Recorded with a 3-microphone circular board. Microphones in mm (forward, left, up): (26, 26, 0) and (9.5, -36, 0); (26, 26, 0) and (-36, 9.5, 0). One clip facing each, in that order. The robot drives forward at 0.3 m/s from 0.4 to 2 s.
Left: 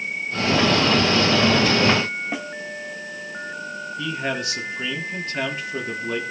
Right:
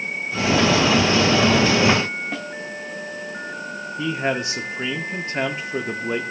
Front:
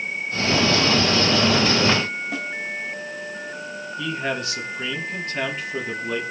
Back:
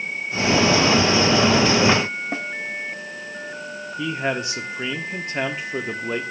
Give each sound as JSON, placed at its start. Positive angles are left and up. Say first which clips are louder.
{"t": 2.3, "sound": "a snare drum", "louder": "left 1 dB, back 1 dB", "azimuth_deg": 145, "distance_m": 1.0}
{"t": 4.0, "sound": "a man speaking", "louder": "right 4 dB, back 2 dB", "azimuth_deg": -125, "distance_m": 1.4}